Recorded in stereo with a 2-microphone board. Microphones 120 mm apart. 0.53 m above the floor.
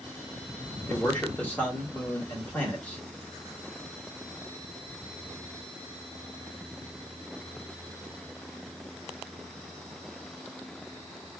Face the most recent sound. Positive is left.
turn(degrees=15)  # may be behind; listen again after turning